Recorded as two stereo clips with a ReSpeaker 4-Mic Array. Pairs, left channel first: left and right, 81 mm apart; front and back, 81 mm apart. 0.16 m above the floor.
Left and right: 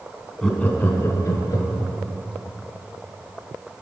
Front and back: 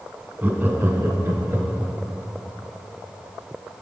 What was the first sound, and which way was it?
Laughter, 160° left.